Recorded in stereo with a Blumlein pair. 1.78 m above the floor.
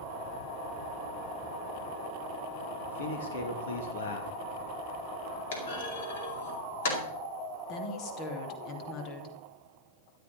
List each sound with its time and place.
2.9 s a man speaking: 60° left, 3 m
5.5 s a clunk: 60° left, 4.5 m
7.7 s a woman speaking: 35° left, 3 m